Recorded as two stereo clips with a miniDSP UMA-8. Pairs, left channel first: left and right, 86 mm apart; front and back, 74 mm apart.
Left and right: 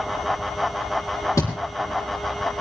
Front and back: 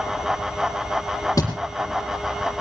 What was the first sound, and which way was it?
A thud, 40° left.